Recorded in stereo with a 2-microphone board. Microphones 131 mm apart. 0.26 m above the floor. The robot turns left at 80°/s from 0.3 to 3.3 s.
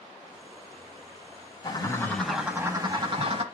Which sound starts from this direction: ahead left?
A bird, at 1.6 s.